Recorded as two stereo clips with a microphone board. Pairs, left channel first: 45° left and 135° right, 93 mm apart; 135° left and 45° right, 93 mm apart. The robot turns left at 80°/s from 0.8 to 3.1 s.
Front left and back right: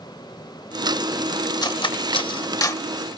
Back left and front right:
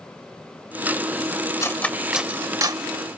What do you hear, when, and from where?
1.6 s cutlery clinking: 80° left, 0.7 m; by 2.9 s 20° right, 0.7 m